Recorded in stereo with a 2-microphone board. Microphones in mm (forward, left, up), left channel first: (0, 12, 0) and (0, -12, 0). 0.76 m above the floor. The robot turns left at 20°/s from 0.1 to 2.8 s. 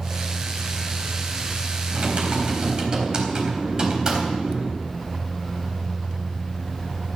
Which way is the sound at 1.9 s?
50° right (ahead or behind).